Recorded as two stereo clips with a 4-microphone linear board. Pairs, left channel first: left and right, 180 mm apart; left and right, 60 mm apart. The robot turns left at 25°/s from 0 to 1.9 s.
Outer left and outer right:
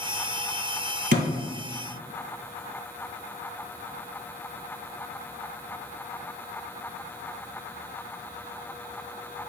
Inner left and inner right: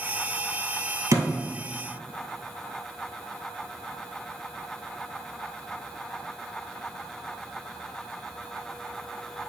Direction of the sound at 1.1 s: 65° right (ahead or behind).